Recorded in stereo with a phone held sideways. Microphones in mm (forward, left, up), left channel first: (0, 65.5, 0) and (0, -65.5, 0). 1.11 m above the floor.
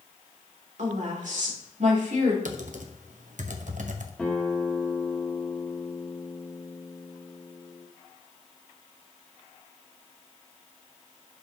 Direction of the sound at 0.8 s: 70° right (ahead or behind).